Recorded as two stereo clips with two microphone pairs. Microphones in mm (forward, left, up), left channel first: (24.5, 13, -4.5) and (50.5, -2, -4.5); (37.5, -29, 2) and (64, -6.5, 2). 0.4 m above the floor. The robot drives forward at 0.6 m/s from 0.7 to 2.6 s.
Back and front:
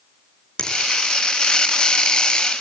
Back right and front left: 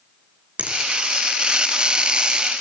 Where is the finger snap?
85° left, 5.5 m.